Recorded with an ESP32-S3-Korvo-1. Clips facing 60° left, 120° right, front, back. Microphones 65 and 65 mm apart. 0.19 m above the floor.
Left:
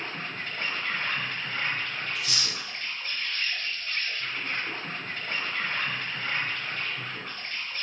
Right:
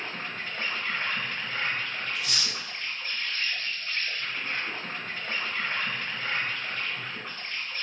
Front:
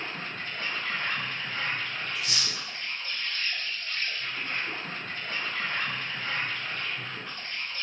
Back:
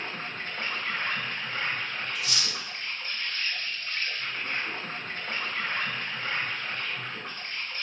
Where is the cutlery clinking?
40° right, 1.5 m.